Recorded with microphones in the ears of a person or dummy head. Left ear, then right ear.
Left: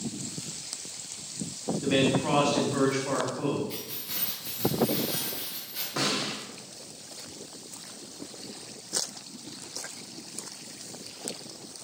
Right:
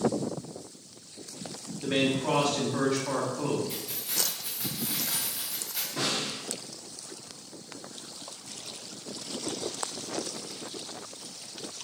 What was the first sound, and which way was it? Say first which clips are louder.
A man speaking: left 2 dB; 10° left (ahead or behind).